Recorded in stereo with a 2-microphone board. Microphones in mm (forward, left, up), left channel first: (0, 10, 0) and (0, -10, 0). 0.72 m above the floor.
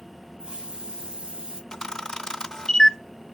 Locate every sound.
0.4 s a hiss: 60° right (ahead or behind), 1.0 m
1.7 s a camera shutter: 30° left (ahead or behind), 0.6 m